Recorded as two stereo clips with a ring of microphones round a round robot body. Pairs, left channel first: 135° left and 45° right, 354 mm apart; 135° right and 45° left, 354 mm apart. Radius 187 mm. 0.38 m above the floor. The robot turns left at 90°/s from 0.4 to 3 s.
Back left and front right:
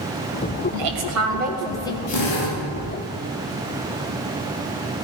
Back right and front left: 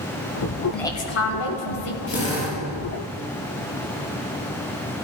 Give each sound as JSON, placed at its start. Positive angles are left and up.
{"t": 0.7, "sound": "a woman speaking", "azimuth_deg": -45, "distance_m": 3.0}
{"t": 2.1, "sound": "a drill", "azimuth_deg": -175, "distance_m": 6.5}